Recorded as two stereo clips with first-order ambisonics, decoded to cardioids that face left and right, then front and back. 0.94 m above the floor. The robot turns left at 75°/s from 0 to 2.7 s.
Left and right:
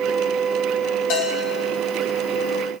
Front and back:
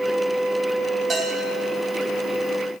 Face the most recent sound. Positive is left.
turn(degrees=-5)